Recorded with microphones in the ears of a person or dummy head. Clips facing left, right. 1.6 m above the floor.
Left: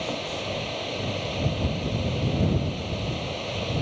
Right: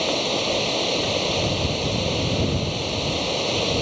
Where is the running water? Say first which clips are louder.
Right 7 dB; 55° right (ahead or behind).